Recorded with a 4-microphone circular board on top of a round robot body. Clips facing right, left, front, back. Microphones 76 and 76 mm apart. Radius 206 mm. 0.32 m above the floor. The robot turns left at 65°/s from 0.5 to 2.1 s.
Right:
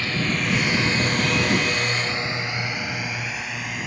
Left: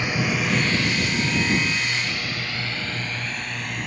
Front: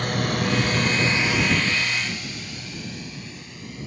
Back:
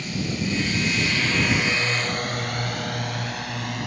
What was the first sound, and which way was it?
A drone, 20° left.